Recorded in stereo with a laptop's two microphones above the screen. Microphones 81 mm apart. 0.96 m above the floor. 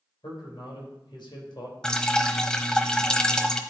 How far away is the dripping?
About 0.8 m.